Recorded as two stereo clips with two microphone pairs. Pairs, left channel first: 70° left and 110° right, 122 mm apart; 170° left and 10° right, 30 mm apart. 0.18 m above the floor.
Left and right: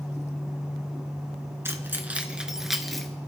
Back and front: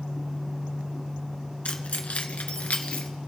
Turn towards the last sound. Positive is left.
turn(degrees=160)